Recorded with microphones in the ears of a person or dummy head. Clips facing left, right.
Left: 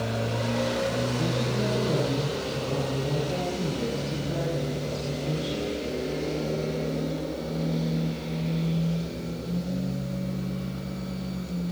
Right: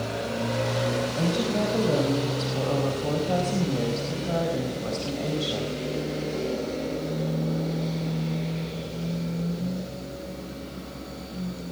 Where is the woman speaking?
85° right, 5 m.